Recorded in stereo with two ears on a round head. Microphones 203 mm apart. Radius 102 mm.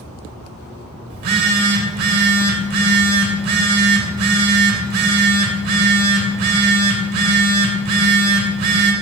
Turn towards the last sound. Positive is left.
turn(degrees=-45)  # may be behind; listen again after turning